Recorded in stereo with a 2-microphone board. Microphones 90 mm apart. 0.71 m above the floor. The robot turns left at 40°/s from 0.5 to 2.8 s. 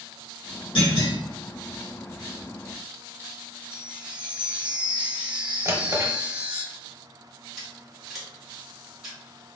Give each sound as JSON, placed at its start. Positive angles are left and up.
{"t": 0.8, "sound": "a clunk", "side_deg": 70, "distance_m": 1.8}
{"t": 3.7, "sound": "a chime", "side_deg": -15, "distance_m": 0.6}
{"t": 5.7, "sound": "a drawer", "side_deg": -30, "distance_m": 0.8}
{"t": 7.6, "sound": "scissors", "side_deg": 0, "distance_m": 1.7}